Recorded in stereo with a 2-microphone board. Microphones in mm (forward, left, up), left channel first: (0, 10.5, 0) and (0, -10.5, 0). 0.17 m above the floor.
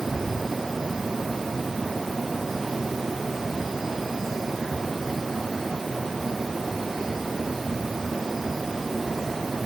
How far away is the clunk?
I don't hear a clunk.